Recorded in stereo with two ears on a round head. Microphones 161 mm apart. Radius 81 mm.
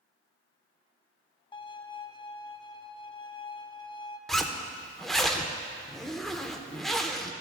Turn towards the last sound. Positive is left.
turn(degrees=0)  # may be behind; listen again after turning